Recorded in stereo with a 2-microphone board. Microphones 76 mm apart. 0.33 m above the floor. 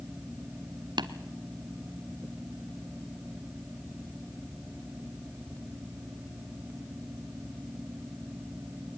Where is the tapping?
80° right, 0.8 m.